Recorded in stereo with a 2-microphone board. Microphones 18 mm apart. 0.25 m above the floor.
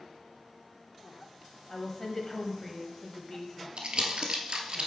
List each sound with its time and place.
1.7 s a woman speaking: 25° left (ahead or behind), 1.0 m
3.8 s crumpling: 60° right (ahead or behind), 1.0 m